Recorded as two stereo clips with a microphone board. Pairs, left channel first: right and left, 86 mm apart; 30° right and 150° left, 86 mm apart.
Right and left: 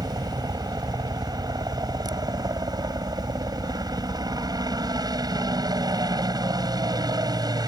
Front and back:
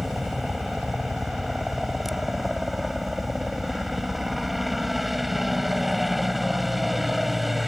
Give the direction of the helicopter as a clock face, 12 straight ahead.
10 o'clock.